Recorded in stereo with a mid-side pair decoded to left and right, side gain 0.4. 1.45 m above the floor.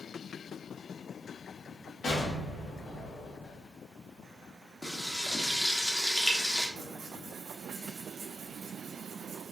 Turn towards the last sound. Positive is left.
turn(degrees=-60)